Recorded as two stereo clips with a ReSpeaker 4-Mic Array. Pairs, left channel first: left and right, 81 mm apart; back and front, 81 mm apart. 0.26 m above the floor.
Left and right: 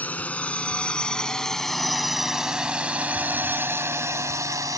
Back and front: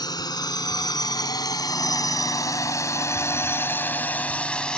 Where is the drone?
160° left; by 4.8 s 105° right.